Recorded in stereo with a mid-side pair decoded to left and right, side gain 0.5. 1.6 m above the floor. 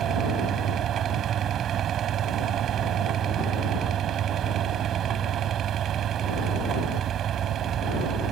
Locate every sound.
0.0 s a fan: 60° right